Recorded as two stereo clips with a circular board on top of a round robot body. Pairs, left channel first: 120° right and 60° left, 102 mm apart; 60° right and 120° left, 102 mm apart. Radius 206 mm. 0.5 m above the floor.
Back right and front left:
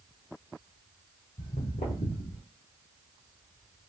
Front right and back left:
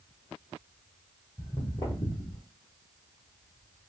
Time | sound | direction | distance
1.4 | footsteps | 135° right | 1.0 m